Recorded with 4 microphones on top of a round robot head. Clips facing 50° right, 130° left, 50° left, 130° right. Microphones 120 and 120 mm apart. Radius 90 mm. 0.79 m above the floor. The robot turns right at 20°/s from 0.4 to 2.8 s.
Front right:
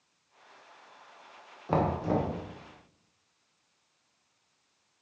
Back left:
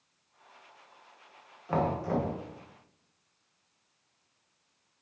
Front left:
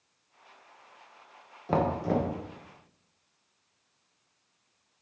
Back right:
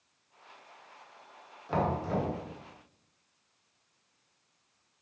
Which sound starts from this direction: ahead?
Knocking, at 1.7 s.